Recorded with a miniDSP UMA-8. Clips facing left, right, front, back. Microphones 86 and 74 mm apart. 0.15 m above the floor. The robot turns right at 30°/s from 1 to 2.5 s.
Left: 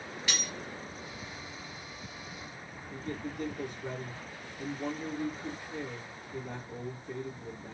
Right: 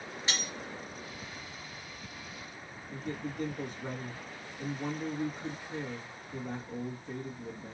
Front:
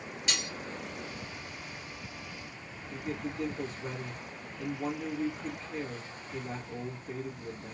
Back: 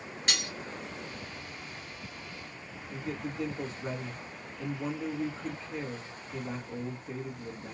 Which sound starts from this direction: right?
A man speaking, at 2.9 s.